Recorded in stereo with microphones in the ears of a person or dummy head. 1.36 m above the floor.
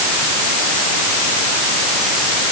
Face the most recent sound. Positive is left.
No sound to turn to.